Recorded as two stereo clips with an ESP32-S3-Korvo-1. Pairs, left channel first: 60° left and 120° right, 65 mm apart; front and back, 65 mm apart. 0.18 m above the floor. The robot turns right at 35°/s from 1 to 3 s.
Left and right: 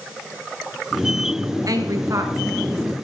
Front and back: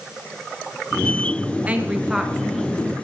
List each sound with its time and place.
1.7 s a woman speaking: 115° right, 2 m; by 2.9 s 75° right, 2 m